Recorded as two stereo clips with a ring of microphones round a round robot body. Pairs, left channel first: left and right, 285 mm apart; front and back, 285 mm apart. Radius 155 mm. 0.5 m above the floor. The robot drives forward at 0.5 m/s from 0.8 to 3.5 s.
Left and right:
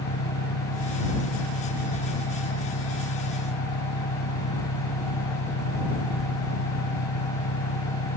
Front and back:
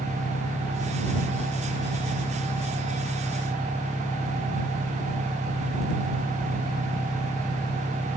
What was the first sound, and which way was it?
An engine running, 80° left.